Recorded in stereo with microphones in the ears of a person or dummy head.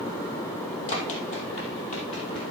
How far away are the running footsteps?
About 2 m.